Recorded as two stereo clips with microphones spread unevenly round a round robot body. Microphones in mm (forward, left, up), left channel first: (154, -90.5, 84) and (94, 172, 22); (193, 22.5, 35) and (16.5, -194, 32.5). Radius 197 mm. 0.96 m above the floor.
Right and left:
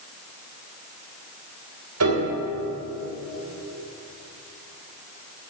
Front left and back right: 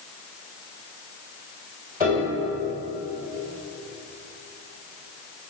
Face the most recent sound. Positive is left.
turn(degrees=150)